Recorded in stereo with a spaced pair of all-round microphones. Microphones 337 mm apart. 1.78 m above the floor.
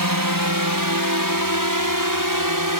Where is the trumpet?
No trumpet in this recording.